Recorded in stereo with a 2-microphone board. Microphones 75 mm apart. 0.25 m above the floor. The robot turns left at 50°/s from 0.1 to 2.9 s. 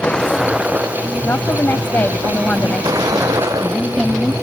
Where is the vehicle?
10° left; by 4.4 s 130° right.